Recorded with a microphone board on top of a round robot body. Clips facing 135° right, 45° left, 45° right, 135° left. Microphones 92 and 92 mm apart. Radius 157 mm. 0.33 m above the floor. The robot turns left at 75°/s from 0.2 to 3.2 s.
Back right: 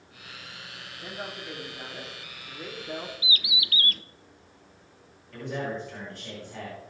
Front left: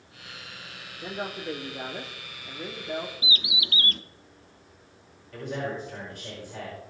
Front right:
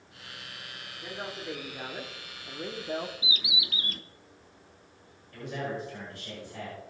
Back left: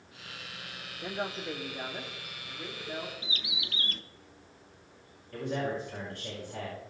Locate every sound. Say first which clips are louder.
1.0 s a woman speaking: front left 5 dB, back left 3 dB; 95° left, 1.5 m; by 3.1 s 65° right, 1.5 m
3.2 s a bird: front left 1 dB, front right 4 dB; 35° left, 0.9 m
5.3 s a man speaking: even, back left 2 dB; 125° left, 5 m